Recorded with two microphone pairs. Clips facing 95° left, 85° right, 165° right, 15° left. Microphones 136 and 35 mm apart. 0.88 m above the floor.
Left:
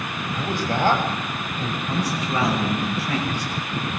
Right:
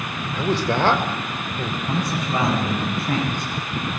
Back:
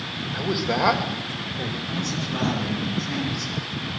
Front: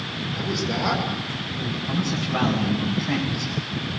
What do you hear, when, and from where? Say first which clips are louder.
0.3 s a man speaking: right 4 dB, back 3 dB; 100° right, 3 m; by 1.8 s 120° right, 3.5 m
1.9 s a man speaking: right 1 dB, front 3 dB; 45° right, 8 m